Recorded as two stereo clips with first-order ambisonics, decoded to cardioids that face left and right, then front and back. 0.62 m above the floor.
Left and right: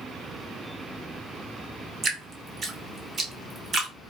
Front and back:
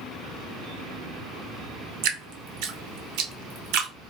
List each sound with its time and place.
2.0 s dripping: 160° right, 0.7 m